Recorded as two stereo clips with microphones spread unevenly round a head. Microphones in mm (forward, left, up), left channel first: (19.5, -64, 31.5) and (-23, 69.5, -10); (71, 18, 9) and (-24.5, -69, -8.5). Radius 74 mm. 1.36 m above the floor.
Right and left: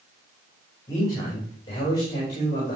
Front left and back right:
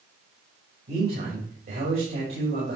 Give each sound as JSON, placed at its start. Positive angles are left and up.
{"t": 0.9, "sound": "a man speaking", "azimuth_deg": -135, "distance_m": 5.5}